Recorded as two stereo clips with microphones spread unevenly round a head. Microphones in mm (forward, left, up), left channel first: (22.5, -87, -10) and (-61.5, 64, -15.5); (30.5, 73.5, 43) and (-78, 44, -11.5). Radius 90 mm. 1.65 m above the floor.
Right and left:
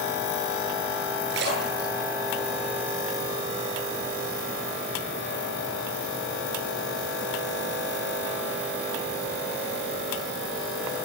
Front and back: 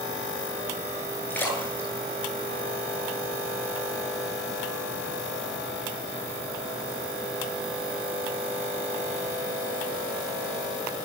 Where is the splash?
85° left, 10 m.